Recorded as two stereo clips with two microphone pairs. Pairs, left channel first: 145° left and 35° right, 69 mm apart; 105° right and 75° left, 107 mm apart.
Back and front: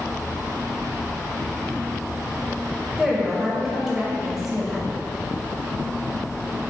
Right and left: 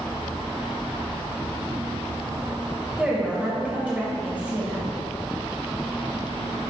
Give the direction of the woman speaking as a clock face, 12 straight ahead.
11 o'clock.